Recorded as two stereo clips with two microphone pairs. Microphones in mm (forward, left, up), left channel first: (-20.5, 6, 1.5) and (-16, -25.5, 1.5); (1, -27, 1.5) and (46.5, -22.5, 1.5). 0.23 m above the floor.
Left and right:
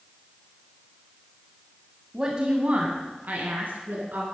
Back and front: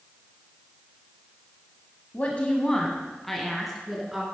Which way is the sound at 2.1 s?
140° right.